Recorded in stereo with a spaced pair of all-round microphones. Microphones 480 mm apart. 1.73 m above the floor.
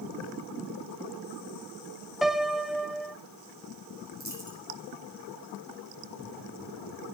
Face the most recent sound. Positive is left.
turn(degrees=-35)  # may be behind; listen again after turning